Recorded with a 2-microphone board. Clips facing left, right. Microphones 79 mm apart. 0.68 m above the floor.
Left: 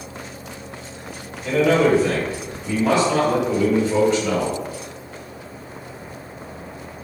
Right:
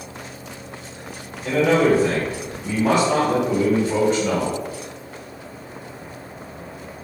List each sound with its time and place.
1.4 s a man speaking: 50° right (ahead or behind), 1.9 m